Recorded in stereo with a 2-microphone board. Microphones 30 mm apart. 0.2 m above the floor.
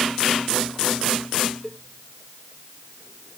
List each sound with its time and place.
1.6 s a cowbell: 10° right (ahead or behind)